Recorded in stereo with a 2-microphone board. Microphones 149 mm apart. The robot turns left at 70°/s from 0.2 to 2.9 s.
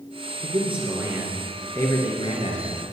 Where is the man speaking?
110° right, 2.5 m; by 2.8 s 80° left, 2.5 m.